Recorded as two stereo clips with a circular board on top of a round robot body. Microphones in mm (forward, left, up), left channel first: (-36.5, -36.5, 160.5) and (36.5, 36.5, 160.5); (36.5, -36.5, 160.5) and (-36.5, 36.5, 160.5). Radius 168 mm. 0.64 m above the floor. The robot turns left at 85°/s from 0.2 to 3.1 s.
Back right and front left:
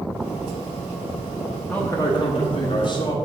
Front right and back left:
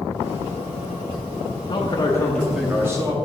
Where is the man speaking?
65° right, 1.0 m; by 3.1 s 175° left, 1.0 m.